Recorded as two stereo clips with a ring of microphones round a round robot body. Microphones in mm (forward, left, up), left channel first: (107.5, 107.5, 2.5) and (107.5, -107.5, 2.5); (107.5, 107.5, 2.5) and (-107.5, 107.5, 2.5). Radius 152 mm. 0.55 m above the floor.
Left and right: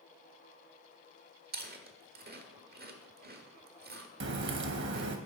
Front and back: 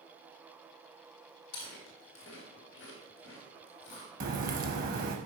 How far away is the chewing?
About 1.2 m.